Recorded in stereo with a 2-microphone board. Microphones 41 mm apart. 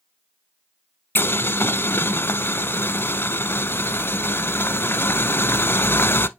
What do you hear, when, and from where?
1.1 s boiling: 60° left (ahead or behind), 0.5 m